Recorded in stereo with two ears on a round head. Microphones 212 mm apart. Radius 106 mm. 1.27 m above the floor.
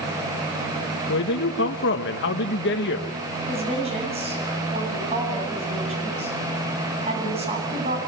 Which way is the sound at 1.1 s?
50° left (ahead or behind).